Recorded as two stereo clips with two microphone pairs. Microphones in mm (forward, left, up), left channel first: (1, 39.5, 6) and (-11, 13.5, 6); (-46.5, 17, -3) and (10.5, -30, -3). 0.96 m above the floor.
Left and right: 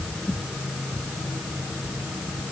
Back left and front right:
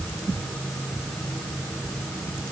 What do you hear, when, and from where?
Only background noise.